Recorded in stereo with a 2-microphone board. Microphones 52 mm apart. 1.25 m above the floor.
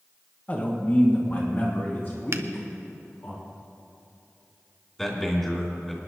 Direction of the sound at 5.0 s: 10° left (ahead or behind).